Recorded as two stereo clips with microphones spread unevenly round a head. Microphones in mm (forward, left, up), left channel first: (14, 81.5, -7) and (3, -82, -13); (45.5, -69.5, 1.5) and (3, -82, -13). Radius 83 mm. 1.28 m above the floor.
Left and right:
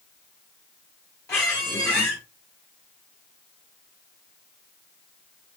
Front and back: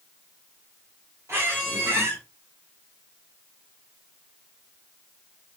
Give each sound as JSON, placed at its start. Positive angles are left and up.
{"t": 1.3, "sound": "a squeak", "azimuth_deg": 160, "distance_m": 1.8}